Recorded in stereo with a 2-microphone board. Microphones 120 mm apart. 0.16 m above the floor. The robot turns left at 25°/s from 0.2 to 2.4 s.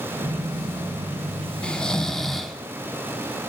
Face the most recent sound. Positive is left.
turn(degrees=0)  # may be behind; listen again after turning